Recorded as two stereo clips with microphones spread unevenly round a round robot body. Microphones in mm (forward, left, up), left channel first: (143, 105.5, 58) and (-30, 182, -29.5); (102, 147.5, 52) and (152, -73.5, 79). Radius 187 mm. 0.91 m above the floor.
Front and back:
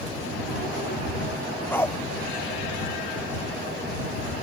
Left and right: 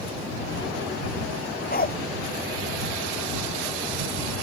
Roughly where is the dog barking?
Ahead left.